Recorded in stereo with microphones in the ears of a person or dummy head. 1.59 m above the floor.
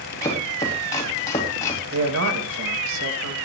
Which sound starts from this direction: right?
A man speaking, at 1.9 s.